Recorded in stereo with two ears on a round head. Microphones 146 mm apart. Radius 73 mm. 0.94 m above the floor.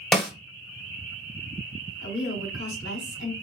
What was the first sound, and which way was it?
A snare drum, 5° left (ahead or behind).